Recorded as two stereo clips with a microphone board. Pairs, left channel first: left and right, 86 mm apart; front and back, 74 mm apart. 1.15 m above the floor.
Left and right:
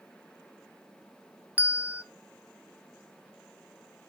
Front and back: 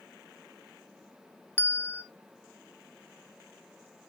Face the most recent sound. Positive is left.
turn(degrees=-35)